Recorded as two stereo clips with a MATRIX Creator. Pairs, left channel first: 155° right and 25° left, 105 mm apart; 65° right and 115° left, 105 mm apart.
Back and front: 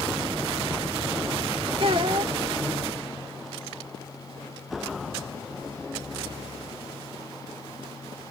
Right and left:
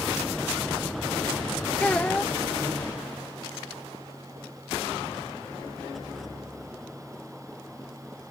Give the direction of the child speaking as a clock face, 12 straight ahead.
12 o'clock.